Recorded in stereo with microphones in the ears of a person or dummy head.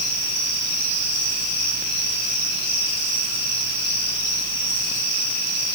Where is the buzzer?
I don't hear a buzzer.